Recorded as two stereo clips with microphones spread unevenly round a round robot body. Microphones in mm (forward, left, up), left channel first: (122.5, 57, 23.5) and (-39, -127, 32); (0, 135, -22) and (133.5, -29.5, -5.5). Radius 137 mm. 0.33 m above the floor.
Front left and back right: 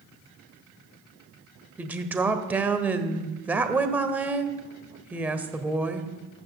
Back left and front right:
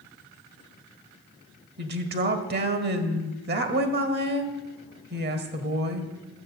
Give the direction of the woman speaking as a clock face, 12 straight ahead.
2 o'clock.